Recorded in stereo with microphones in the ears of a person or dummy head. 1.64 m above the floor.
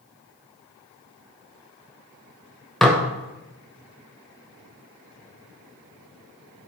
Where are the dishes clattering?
Centre (ahead or behind), 0.7 m.